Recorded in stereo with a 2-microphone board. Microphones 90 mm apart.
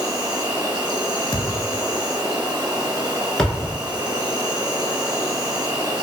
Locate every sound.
0.0 s an insect: 40° right (ahead or behind), 1.1 m
1.3 s a thud: 45° left (ahead or behind), 0.5 m
3.4 s a thud: 5° left (ahead or behind), 0.8 m